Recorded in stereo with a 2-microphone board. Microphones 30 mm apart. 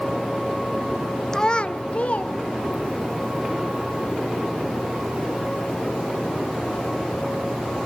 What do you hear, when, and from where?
1.3 s a child speaking: 20° left (ahead or behind), 0.7 m; by 3.1 s 50° left (ahead or behind), 2.5 m